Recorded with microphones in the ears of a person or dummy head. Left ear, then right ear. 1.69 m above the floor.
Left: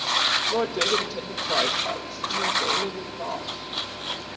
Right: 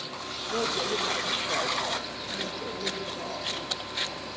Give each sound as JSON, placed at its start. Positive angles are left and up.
{"t": 0.5, "sound": "a woman speaking", "side_deg": 65, "distance_m": 2.5}